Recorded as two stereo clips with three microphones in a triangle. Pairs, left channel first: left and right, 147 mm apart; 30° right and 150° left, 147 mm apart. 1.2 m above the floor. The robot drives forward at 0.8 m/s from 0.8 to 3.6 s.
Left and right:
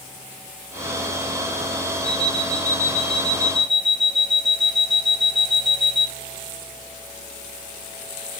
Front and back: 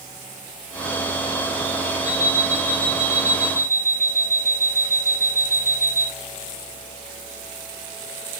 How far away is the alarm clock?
About 3.5 m.